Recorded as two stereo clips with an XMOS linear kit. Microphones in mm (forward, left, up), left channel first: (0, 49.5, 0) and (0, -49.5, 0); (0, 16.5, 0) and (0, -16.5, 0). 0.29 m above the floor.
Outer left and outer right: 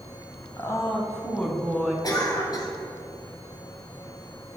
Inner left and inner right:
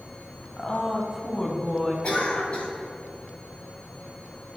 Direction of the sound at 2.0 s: 45° left (ahead or behind).